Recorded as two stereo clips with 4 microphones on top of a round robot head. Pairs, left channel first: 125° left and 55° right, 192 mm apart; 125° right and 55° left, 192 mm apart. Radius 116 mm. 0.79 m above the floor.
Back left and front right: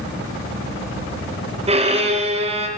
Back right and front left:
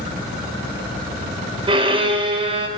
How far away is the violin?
About 0.7 m.